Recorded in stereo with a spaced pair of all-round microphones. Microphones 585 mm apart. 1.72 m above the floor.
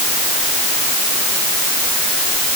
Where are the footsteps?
I don't hear footsteps.